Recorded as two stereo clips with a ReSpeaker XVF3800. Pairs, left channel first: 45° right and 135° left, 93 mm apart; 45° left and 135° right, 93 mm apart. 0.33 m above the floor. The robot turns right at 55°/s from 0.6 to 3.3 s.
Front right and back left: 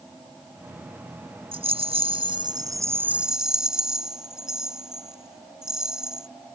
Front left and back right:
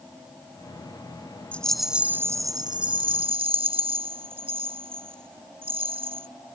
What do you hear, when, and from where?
1.5 s a rattle: 120° left; by 6.3 s 140° right